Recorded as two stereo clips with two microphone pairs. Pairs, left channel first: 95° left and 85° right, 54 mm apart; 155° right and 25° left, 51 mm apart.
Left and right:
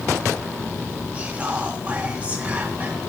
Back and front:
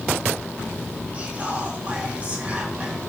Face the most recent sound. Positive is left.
turn(degrees=-30)